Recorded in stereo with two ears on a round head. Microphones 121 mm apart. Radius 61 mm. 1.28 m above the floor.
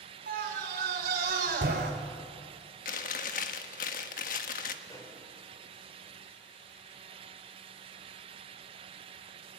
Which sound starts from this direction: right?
A scream, at 0.3 s.